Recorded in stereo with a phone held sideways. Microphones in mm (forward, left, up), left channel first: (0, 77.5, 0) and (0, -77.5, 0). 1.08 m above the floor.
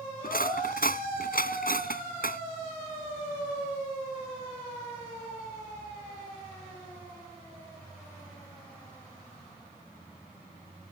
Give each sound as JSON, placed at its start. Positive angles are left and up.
{"t": 0.2, "sound": "cutlery clinking", "side_deg": 70}